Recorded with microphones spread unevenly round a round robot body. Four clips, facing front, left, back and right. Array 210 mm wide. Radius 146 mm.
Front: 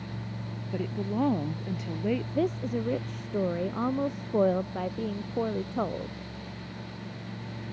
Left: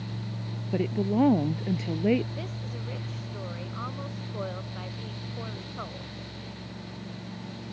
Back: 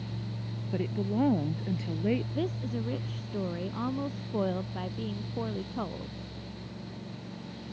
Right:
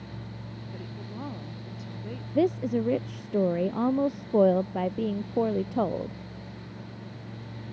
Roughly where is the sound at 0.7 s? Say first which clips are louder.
Left 17 dB, even; left.